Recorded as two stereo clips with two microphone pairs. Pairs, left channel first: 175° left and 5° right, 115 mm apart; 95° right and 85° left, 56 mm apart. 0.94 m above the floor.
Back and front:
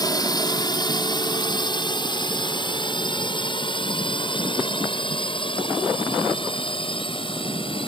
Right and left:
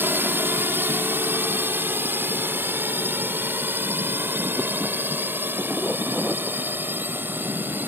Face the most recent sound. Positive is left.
turn(degrees=135)